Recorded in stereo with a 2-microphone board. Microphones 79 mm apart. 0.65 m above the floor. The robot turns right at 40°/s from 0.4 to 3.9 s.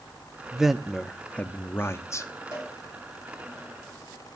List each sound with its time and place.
0.5 s a man speaking: 15° right, 0.7 m; by 2.3 s 60° left, 0.7 m
2.5 s a cowbell: 45° left (ahead or behind), 5.5 m; by 2.7 s 40° left (ahead or behind), 5.5 m